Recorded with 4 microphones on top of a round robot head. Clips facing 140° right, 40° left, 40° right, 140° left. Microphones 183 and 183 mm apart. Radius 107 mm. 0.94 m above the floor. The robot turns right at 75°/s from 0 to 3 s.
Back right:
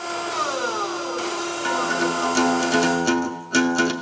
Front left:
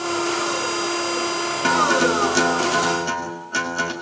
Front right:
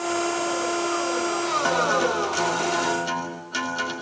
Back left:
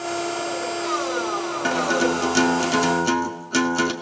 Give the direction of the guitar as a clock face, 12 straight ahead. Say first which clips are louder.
Front left 5 dB, back left 3 dB; 10 o'clock.